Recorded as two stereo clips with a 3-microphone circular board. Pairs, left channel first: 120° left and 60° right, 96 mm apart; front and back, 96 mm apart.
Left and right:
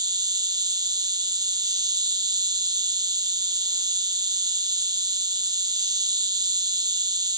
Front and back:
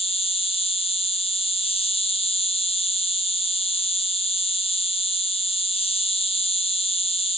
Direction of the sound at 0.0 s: 10° right.